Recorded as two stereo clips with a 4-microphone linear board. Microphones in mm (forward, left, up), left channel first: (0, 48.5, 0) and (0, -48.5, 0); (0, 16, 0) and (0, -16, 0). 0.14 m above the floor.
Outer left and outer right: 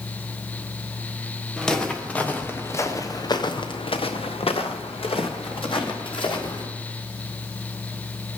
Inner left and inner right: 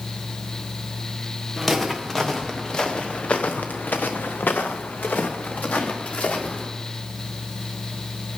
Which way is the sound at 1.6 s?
5° left (ahead or behind).